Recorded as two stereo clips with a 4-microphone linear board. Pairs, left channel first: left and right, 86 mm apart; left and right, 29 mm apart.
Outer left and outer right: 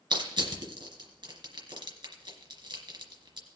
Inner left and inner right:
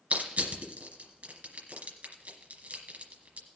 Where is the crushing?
65° right (ahead or behind), 2.5 m.